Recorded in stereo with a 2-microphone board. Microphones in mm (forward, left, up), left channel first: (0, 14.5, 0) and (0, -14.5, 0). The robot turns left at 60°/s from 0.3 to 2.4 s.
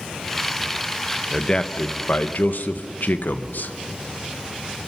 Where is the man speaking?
165° left, 1.1 m; by 3.7 s 100° left, 1.1 m.